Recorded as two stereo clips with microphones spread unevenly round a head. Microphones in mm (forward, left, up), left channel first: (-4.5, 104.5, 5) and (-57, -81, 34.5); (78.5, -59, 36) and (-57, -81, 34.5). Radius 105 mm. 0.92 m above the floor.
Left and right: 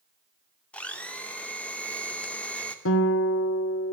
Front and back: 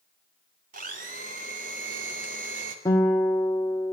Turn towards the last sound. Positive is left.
turn(degrees=85)